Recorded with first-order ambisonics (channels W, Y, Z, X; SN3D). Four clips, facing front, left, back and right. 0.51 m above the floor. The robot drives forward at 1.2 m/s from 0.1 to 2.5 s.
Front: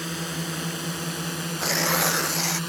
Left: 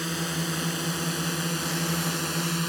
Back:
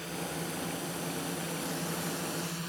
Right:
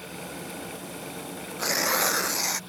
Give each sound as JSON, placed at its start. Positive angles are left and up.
{"t": 0.0, "sound": "a drone", "azimuth_deg": 55}
{"t": 1.6, "sound": "tearing paper", "azimuth_deg": -40}